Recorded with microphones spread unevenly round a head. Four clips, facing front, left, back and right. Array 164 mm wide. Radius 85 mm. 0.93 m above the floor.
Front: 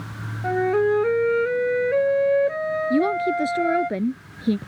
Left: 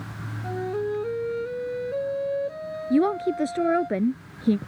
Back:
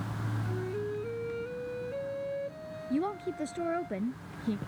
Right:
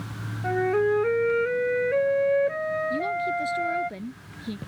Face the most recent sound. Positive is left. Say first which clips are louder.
# left 5 dB, front 10 dB
turn(degrees=45)